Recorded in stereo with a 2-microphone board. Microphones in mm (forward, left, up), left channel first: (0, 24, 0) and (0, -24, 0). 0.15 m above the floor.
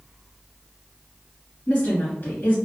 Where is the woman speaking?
40° left (ahead or behind), 1.9 m.